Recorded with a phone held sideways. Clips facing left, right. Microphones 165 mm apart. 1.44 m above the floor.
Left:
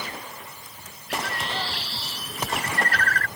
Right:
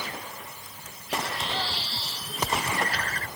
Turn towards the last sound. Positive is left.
turn(degrees=75)  # may be behind; listen again after turning